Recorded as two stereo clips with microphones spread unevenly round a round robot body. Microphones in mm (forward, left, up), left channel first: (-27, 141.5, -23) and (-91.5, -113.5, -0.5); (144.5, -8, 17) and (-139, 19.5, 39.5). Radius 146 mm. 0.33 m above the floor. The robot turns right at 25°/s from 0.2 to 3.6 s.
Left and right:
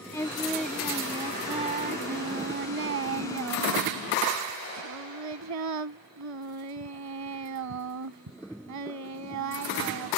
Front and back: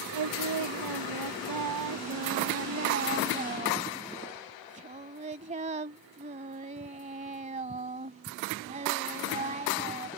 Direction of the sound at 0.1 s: 155° left.